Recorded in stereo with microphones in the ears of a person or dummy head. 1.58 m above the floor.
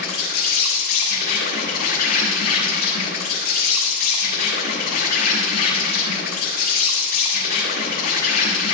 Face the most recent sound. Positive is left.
turn(degrees=55)  # may be behind; listen again after turning